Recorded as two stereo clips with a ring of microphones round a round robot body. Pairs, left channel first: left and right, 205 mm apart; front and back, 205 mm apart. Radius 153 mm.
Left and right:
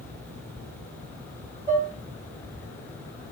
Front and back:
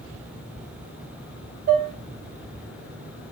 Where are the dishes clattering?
145° right, 1.2 m.